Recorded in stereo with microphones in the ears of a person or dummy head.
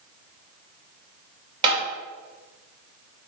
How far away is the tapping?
About 2.5 m.